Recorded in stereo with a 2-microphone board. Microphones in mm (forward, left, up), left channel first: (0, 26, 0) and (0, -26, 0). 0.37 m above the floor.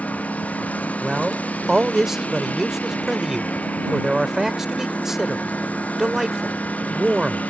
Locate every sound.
0.0 s a lawn mower: 30° left (ahead or behind)
1.0 s a man speaking: 10° right (ahead or behind)